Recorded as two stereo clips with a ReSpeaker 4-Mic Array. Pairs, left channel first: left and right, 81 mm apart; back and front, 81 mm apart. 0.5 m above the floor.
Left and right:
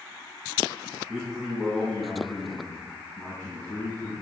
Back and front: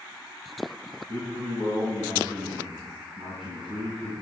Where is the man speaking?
5° right, 3.5 m; by 4.1 s 25° left, 4.5 m.